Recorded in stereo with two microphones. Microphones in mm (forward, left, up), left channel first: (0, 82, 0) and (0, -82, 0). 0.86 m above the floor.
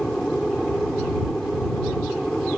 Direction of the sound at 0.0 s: 5° left (ahead or behind).